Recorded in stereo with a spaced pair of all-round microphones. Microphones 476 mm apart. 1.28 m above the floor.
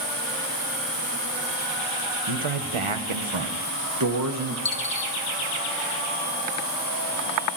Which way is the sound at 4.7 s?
45° left (ahead or behind).